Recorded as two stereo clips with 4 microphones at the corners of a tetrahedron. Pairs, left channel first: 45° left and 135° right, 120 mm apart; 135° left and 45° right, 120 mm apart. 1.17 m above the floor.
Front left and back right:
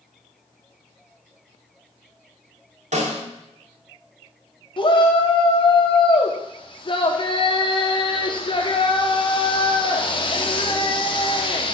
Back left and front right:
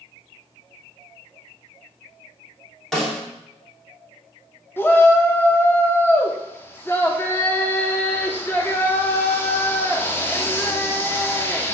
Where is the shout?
70° left, 0.8 m.